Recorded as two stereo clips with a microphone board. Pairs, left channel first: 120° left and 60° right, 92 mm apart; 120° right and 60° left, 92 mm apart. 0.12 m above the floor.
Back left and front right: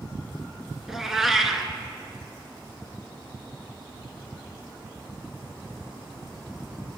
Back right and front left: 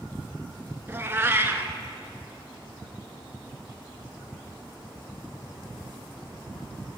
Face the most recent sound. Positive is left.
turn(degrees=20)